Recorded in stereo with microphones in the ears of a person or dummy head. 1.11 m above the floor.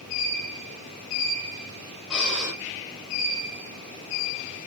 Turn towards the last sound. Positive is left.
turn(degrees=-10)  # may be behind; listen again after turning